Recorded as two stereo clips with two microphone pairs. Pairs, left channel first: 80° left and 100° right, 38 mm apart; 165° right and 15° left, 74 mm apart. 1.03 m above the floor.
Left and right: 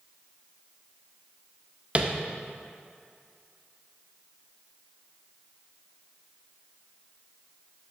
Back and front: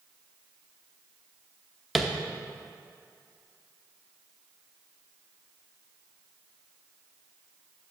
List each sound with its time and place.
1.9 s tapping: 75° right, 0.6 m